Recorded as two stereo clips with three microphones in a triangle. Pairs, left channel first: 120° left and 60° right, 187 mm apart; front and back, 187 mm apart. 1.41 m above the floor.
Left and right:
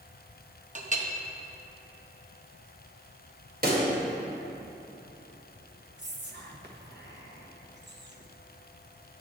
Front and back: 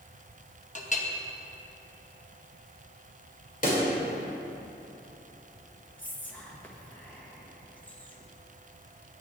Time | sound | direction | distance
0.8 | a clink | 30° right | 0.9 m
3.6 | a pop | 35° right | 2.0 m
6.0 | whispering | 80° right | 1.3 m